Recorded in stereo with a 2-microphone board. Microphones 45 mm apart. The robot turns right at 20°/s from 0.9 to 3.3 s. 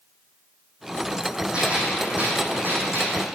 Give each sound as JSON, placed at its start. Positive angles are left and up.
{"t": 1.5, "sound": "a gunshot", "azimuth_deg": -155, "distance_m": 3.5}